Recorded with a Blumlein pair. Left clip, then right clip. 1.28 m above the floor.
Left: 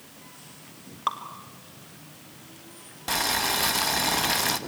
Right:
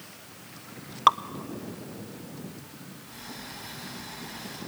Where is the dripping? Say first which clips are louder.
Right 8 dB; 65° right, 0.9 m.